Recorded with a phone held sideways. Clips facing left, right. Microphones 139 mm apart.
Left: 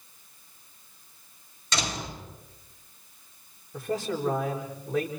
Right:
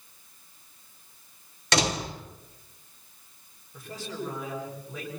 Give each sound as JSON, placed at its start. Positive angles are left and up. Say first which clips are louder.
{"t": 1.7, "sound": "a door slam", "louder": "right 6 dB", "side_deg": -75, "distance_m": 4.0}
{"t": 3.7, "sound": "a man speaking", "louder": "left 7 dB", "side_deg": 85, "distance_m": 8.0}